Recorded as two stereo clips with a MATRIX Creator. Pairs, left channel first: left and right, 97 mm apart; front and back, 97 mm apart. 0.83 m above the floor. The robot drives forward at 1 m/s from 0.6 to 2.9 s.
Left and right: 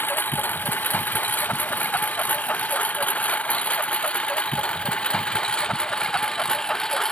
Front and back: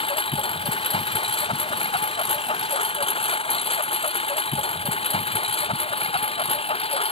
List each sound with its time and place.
0.0 s a lawn mower: 20° left; by 7.1 s 5° left